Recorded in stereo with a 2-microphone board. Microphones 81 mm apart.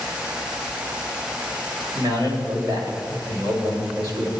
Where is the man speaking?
60° right (ahead or behind), 2.5 m.